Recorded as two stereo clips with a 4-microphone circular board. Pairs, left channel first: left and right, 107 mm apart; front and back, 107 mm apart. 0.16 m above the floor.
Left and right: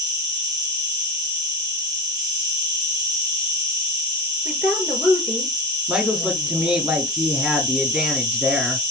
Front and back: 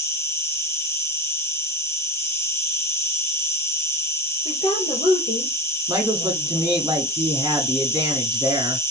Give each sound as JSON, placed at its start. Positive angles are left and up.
{"t": 0.0, "sound": "an insect", "azimuth_deg": -50, "distance_m": 3.0}
{"t": 4.5, "sound": "a woman speaking", "azimuth_deg": -10, "distance_m": 3.5}
{"t": 5.9, "sound": "a woman speaking", "azimuth_deg": -155, "distance_m": 1.3}